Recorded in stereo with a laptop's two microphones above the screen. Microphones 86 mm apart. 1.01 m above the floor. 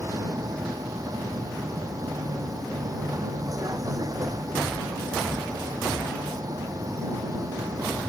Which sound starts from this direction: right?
A vehicle, at 0.0 s.